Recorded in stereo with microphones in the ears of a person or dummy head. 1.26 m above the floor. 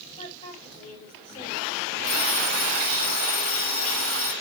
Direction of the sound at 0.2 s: 35° left (ahead or behind).